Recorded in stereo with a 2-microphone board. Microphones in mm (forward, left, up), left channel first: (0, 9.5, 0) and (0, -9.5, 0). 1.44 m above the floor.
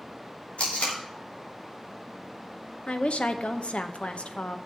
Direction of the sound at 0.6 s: 75° left (ahead or behind).